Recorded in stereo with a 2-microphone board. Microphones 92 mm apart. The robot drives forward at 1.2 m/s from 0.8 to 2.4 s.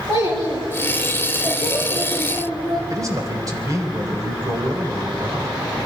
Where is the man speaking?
40° right (ahead or behind), 3 m.